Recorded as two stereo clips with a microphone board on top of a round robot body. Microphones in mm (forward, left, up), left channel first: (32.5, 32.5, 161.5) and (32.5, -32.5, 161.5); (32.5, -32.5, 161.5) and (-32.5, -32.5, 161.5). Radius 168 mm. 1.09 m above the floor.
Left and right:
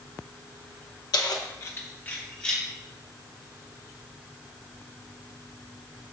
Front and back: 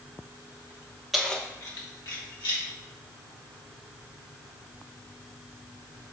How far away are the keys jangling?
About 0.8 m.